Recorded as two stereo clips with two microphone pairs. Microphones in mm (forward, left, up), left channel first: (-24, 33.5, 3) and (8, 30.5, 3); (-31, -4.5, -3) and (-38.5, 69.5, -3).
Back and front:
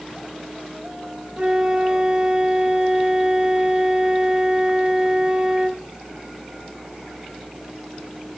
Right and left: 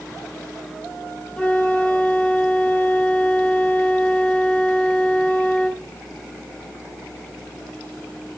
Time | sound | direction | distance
1.4 | a flute | 25° right | 0.9 m